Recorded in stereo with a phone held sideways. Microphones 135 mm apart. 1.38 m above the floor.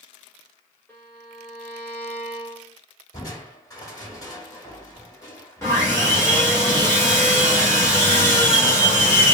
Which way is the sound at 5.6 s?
20° left (ahead or behind).